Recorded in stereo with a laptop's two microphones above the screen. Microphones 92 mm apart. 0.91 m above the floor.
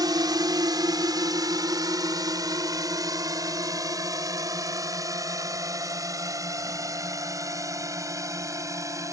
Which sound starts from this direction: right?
A drone, at 0.0 s.